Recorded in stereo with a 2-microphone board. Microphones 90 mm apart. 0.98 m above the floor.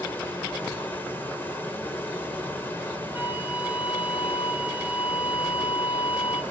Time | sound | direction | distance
0.0 | running water | 20° left (ahead or behind) | 3 m
3.1 | a flute | 20° right (ahead or behind) | 1.8 m